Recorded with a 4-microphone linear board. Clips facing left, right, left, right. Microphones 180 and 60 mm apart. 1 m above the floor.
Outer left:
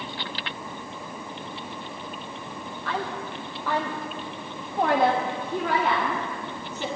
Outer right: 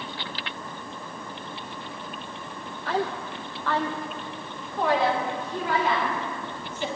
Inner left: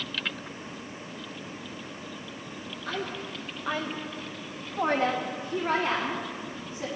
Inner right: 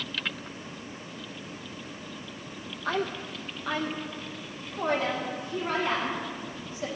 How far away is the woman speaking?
About 0.6 m.